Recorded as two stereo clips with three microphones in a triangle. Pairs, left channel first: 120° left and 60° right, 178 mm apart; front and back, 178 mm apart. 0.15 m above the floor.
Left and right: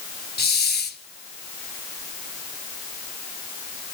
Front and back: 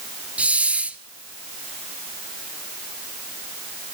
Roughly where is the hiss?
Left.